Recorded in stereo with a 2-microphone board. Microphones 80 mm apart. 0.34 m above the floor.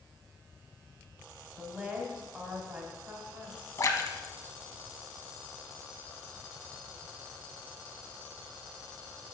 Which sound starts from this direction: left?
A splash, at 3.8 s.